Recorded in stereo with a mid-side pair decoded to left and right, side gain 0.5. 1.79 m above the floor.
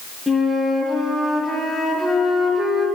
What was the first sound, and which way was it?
A flute, straight ahead.